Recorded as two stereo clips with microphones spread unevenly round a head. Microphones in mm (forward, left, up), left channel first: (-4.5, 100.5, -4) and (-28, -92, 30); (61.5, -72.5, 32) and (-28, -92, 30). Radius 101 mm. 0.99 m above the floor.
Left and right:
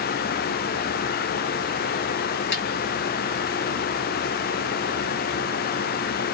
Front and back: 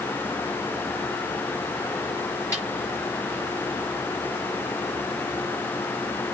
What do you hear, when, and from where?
2.5 s a snare drum: 115° left, 5.5 m